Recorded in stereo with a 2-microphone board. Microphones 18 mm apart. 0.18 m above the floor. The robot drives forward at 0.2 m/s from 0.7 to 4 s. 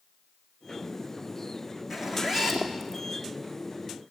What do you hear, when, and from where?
1.9 s a zipper: 25° right (ahead or behind), 3 m